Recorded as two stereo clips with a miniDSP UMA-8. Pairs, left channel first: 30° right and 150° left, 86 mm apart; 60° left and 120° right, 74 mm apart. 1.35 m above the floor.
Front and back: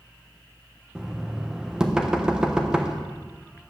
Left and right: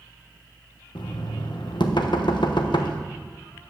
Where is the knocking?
70° left, 1.0 m.